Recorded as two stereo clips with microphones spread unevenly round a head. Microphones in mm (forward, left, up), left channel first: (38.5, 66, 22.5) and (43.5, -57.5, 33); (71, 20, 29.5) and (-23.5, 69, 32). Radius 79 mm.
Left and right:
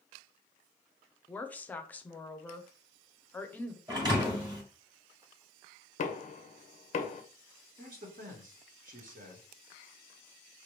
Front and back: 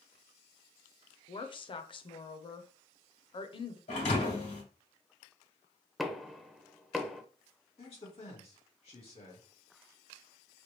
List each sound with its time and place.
1.3 s a woman speaking: 15° left, 0.6 m
3.9 s a thud: 35° right, 1.9 m
6.0 s knocking: 65° left, 0.6 m
7.8 s a man speaking: 75° right, 1.2 m